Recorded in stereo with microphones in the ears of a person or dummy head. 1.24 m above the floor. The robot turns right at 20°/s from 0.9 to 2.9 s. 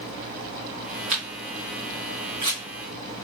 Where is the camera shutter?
30° right (ahead or behind), 1.1 m; by 2.6 s 25° right (ahead or behind), 1.1 m.